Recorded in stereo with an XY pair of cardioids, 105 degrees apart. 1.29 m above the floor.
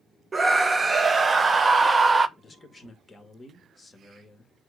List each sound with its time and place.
0.3 s a scream: 25° right, 0.8 m
2.4 s a man speaking: 20° left, 2 m